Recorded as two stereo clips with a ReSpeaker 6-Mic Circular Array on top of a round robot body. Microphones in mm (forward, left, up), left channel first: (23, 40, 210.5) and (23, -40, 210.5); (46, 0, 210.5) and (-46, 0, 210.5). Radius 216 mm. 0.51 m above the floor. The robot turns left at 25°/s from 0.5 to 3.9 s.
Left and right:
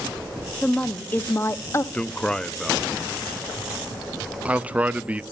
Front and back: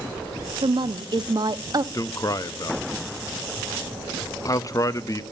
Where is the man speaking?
25° left, 1.0 m; by 5.2 s 25° right, 1.0 m.